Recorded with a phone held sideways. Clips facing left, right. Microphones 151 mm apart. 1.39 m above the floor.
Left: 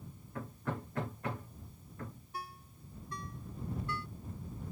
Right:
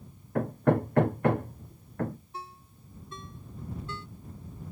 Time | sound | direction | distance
0.3 | hammering | 65° right (ahead or behind) | ?
2.3 | a ringtone | 25° right (ahead or behind) | ?